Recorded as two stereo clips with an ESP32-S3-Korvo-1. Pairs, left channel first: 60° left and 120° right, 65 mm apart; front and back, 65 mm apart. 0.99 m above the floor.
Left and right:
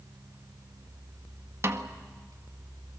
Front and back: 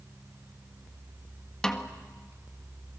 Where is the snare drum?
80° right, 1.6 m.